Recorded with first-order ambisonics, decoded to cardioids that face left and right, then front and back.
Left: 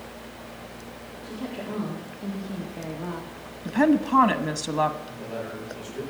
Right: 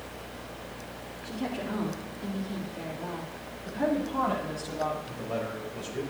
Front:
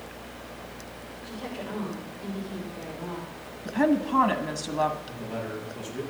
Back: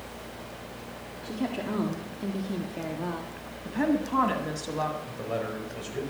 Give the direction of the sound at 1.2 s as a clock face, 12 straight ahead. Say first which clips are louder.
Right 1 dB, back 4 dB; 6 o'clock.